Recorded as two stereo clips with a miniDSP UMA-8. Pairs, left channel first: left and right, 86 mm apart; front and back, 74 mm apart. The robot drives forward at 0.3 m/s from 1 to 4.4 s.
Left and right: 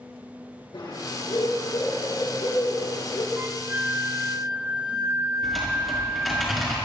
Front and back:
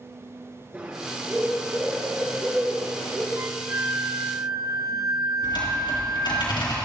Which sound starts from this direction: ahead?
Typing on a keyboard, at 5.4 s.